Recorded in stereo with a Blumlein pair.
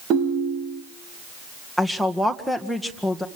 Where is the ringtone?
30° right, 2.5 m.